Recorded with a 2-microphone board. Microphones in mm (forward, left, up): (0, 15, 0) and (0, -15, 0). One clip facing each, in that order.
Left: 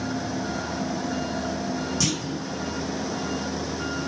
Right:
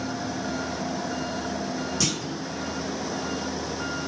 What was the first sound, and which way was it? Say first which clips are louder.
A clunk: left 1 dB; 5° right (ahead or behind).